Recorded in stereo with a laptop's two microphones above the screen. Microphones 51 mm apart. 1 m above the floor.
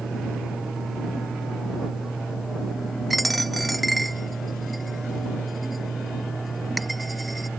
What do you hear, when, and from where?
0.0 s a fan: 5° right (ahead or behind)
3.1 s a dropped coin: centre (ahead or behind)